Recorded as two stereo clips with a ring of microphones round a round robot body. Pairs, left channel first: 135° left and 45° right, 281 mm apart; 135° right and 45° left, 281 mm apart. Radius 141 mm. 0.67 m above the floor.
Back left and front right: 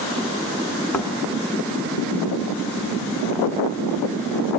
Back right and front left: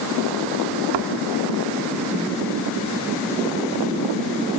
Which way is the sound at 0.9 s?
50° left.